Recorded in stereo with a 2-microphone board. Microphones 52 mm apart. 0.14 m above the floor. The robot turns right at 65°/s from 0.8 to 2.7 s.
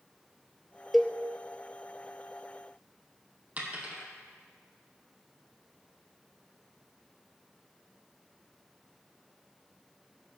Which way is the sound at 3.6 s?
30° right (ahead or behind).